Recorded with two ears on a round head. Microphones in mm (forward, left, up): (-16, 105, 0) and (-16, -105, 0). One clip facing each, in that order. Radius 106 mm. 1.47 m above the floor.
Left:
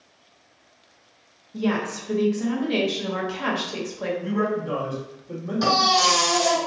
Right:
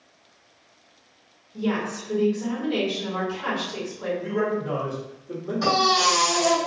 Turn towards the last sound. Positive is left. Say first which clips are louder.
# left 1 dB
turn(degrees=50)  # may be behind; listen again after turning